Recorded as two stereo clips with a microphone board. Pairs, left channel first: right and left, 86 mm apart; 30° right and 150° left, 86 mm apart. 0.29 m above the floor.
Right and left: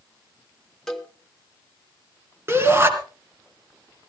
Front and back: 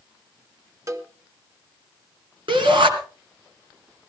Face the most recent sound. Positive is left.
turn(degrees=150)